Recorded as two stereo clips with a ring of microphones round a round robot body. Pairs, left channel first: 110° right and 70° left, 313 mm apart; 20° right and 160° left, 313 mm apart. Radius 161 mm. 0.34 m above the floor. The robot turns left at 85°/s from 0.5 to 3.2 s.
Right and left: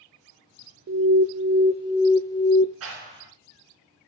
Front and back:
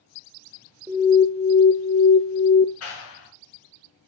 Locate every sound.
0.9 s an alarm: 80° left, 0.7 m; by 2.6 s 70° right, 0.7 m
2.8 s a clap: 25° left, 4 m; by 3.3 s 10° right, 4 m